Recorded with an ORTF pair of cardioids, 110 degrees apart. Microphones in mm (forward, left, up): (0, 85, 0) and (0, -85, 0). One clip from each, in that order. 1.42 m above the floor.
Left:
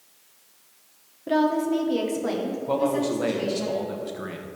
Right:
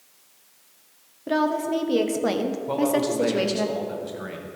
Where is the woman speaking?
5° right, 1.2 m; by 3.7 s 80° right, 1.2 m.